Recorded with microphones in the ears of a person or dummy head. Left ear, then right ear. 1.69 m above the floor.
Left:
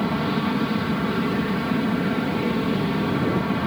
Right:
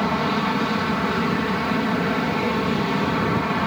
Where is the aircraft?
40° right (ahead or behind).